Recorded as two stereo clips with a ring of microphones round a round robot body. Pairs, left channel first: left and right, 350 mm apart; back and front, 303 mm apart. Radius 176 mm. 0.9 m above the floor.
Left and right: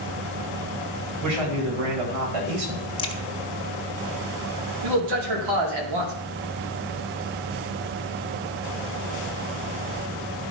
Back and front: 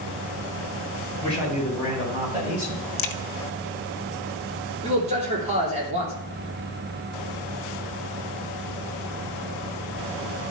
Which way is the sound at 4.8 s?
70° right.